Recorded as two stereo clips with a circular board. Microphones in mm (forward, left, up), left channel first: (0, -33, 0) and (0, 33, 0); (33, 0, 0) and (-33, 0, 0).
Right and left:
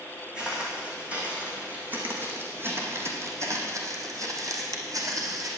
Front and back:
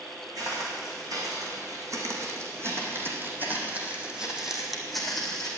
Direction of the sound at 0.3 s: 165° left.